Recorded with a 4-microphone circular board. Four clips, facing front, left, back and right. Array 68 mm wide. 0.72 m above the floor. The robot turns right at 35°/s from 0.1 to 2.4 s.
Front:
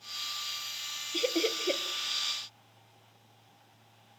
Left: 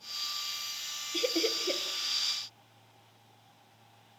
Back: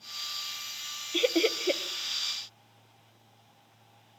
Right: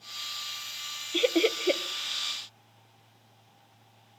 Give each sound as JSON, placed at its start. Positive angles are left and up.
{"t": 1.1, "sound": "laughter", "azimuth_deg": -130, "distance_m": 0.7}